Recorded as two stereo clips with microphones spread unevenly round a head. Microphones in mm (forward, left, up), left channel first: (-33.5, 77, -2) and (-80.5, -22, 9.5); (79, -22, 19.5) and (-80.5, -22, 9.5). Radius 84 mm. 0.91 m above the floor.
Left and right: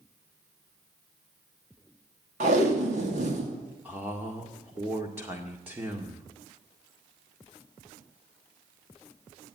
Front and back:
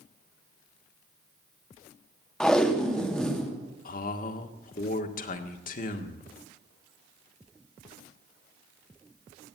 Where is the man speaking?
35° right, 1.8 m.